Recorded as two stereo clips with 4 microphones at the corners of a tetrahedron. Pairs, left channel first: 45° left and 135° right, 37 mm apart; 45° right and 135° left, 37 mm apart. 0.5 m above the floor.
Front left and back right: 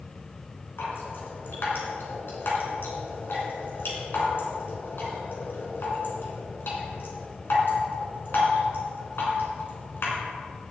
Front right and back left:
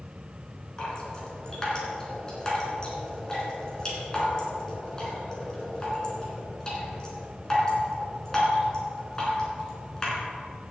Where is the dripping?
25° left, 3 m.